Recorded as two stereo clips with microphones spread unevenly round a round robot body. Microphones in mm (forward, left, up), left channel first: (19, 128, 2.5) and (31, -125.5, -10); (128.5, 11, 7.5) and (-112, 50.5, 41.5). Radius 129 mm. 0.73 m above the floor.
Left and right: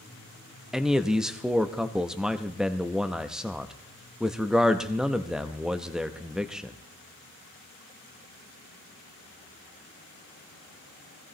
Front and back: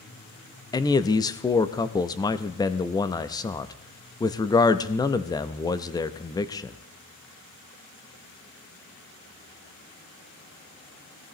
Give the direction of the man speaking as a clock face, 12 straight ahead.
12 o'clock.